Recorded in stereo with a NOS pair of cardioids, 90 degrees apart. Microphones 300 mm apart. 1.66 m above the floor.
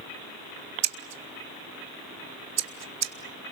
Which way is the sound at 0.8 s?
60° right.